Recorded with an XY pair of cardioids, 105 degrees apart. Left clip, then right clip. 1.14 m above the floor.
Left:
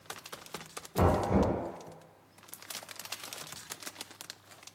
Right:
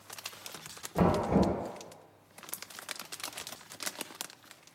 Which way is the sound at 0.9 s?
10° right.